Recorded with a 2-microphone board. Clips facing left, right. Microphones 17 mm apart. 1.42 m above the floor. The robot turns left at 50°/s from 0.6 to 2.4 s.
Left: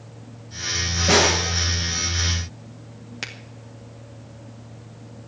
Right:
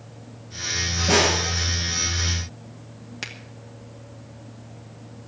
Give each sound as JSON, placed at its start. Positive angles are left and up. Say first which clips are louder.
{"t": 1.1, "sound": "a snare drum", "louder": "left 2 dB", "side_deg": 85, "distance_m": 7.0}
{"t": 3.2, "sound": "a finger snap", "louder": "left 1 dB", "side_deg": 10, "distance_m": 2.0}